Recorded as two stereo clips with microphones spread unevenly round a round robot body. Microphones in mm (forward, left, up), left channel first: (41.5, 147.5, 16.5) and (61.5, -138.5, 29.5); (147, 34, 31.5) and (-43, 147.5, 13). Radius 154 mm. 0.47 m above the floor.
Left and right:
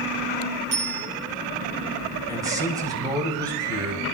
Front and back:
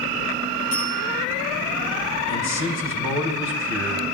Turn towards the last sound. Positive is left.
turn(degrees=-10)